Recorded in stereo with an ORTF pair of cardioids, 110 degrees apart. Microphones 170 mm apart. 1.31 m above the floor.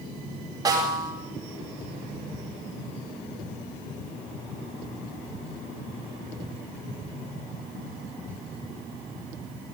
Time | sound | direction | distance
0.7 | a snare drum | 20° right | 8.5 m